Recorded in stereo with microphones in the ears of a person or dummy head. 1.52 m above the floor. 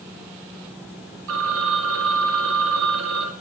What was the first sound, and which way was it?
A phone ringing, 65° right (ahead or behind).